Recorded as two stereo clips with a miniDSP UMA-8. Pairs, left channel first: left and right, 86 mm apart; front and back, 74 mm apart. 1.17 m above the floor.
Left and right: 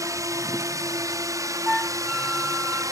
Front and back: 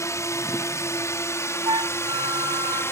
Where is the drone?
45° right; by 2.9 s 50° right.